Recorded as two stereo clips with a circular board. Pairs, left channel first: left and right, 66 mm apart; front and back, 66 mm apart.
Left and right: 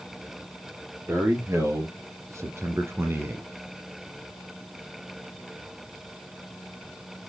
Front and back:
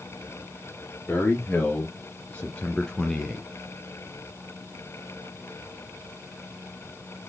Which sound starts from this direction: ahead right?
A man speaking, at 1.1 s.